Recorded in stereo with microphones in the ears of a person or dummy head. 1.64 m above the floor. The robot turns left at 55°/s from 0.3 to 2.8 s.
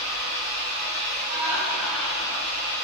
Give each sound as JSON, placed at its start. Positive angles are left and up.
{"t": 0.0, "sound": "an engine running", "azimuth_deg": -90, "distance_m": 1.8}
{"t": 1.3, "sound": "laughter", "azimuth_deg": -145, "distance_m": 0.6}